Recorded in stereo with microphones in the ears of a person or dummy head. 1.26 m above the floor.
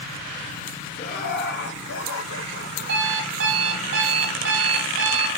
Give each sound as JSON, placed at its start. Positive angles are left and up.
{"t": 1.0, "sound": "laughter", "side_deg": 50, "distance_m": 2.0}
{"t": 2.9, "sound": "an alarm clock", "side_deg": -65, "distance_m": 2.0}